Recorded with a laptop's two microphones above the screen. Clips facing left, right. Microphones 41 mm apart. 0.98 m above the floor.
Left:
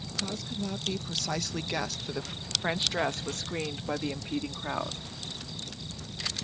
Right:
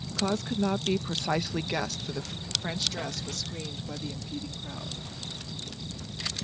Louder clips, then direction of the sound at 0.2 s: Right 7 dB; 50° right (ahead or behind).